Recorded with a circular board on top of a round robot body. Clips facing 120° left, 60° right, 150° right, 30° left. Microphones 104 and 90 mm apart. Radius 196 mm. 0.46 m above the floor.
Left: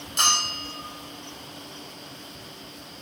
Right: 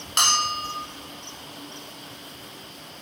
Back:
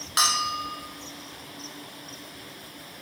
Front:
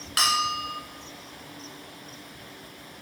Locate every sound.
0.2 s a bell: 85° right, 1.2 m